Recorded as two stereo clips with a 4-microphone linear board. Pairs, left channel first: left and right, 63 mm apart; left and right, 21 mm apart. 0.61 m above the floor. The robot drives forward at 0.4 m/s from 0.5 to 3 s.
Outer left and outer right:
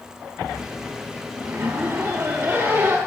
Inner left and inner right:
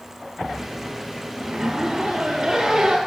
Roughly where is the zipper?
Right.